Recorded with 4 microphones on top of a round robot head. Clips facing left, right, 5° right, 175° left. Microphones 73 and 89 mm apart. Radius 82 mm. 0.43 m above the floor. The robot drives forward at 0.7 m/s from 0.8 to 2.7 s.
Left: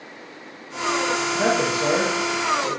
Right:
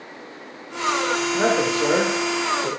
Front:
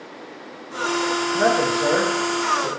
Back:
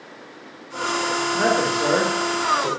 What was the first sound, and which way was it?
A man speaking, 90° right.